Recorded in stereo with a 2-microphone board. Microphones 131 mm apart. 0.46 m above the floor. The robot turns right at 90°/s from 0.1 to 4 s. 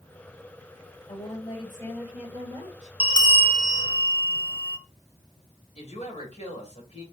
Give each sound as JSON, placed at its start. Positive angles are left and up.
{"t": 1.1, "sound": "a woman speaking", "azimuth_deg": 100, "distance_m": 1.8}
{"t": 3.0, "sound": "a bell", "azimuth_deg": 115, "distance_m": 0.9}
{"t": 5.8, "sound": "a woman speaking", "side_deg": 60, "distance_m": 2.0}